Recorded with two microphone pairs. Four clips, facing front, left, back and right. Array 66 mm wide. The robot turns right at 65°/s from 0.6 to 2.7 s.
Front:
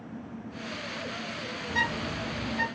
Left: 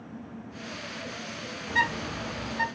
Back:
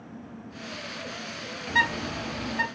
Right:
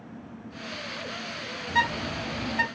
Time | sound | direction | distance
1.7 | a bird | 170° right | 1.3 m